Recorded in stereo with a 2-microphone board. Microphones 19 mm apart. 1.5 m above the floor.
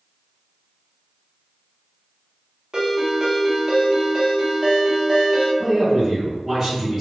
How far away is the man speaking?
About 1.4 m.